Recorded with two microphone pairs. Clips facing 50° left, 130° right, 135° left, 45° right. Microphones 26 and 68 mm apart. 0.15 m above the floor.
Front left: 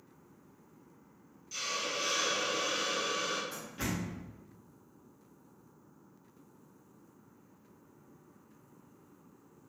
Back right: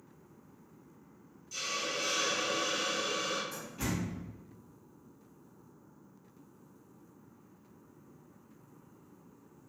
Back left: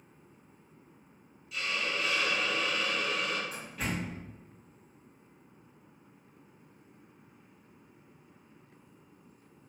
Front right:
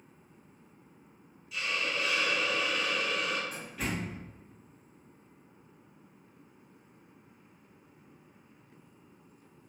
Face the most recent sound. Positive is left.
turn(degrees=50)